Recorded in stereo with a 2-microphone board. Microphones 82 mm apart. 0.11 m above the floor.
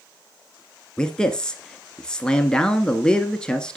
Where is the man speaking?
10° left (ahead or behind), 1.3 m.